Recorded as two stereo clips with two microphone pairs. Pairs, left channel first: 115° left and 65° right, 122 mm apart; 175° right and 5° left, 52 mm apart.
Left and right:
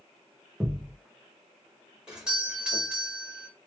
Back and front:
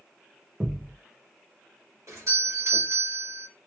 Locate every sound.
0.6 s a thud: 15° left, 1.3 m
2.1 s a doorbell: 15° left, 1.9 m